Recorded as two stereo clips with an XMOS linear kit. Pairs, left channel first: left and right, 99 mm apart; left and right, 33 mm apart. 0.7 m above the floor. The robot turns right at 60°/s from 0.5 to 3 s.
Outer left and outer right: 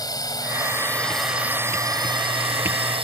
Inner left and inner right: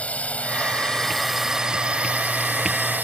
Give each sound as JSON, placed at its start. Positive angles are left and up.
{"t": 0.0, "sound": "a drone", "azimuth_deg": 135}